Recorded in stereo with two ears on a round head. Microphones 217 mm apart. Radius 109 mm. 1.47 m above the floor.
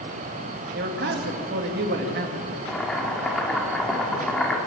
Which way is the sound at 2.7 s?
Centre (ahead or behind).